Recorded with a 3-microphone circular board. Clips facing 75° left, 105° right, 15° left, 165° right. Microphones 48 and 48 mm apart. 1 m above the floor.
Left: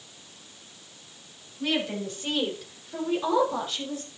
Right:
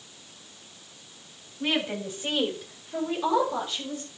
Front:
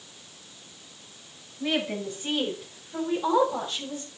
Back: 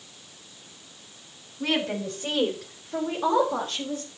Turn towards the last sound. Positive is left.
turn(degrees=155)